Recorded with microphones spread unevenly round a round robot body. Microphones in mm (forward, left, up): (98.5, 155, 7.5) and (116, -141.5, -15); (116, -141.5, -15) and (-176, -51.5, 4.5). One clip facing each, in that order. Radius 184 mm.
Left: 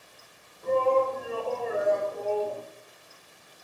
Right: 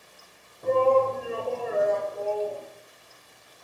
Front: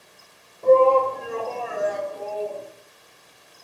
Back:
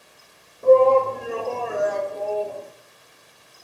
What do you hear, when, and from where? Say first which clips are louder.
0.6 s a shout: right 3 dB, back 1 dB; 120° right, 1.7 m; by 2.6 s 120° left, 1.3 m